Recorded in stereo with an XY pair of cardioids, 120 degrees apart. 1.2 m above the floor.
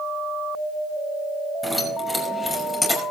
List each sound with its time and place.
1.6 s keys jangling: 10° left, 6 m; by 3.0 s 20° left, 5.5 m